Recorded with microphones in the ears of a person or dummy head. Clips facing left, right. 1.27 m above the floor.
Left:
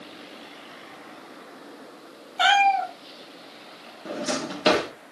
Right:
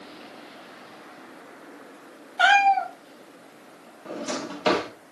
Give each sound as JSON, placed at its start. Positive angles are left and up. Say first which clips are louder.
{"t": 2.4, "sound": "a cat meowing", "louder": "right 1 dB", "side_deg": 0, "distance_m": 2.0}
{"t": 4.0, "sound": "a drawer", "louder": "left 2 dB", "side_deg": 15, "distance_m": 0.9}